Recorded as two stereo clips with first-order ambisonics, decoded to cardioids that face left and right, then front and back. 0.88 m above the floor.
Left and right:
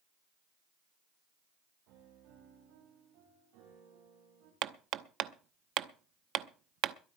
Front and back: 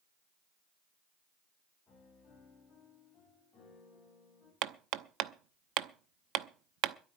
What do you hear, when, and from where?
1.9 s a piano: 75° right, 7.5 m
4.6 s hammering: 140° right, 0.7 m